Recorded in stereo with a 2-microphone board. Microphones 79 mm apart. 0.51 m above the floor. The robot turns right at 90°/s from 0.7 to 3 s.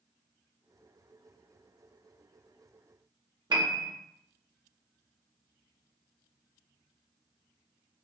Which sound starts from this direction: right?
A piano, at 3.5 s.